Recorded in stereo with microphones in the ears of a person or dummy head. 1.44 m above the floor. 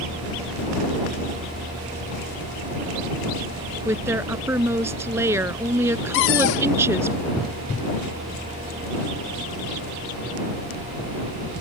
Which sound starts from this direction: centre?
A woman speaking, at 3.9 s.